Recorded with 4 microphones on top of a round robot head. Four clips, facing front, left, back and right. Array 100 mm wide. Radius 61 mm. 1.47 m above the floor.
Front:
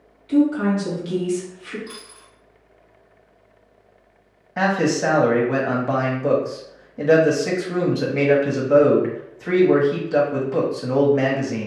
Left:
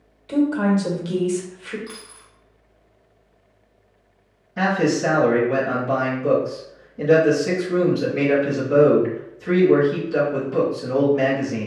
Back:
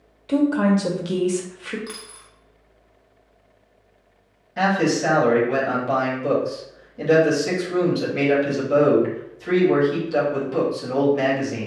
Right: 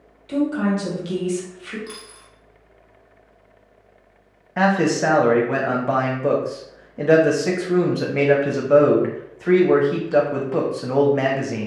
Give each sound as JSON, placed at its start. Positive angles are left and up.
{"t": 0.3, "sound": "a woman speaking", "azimuth_deg": 170, "distance_m": 1.1}
{"t": 1.9, "sound": "a dropped coin", "azimuth_deg": -170, "distance_m": 1.1}
{"t": 4.6, "sound": "a man speaking", "azimuth_deg": -60, "distance_m": 1.0}